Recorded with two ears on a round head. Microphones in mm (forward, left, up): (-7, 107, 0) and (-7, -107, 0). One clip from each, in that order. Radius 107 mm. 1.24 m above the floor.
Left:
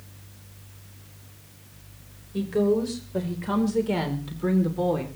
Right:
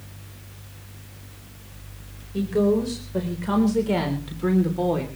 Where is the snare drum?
I don't hear a snare drum.